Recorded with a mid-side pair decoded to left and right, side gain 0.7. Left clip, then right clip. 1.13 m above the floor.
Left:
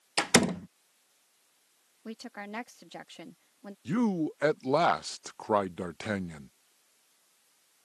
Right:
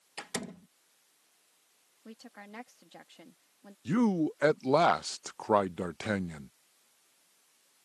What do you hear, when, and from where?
0.2 s a door slam: 55° left
2.0 s a woman speaking: 35° left
3.9 s a man speaking: 5° right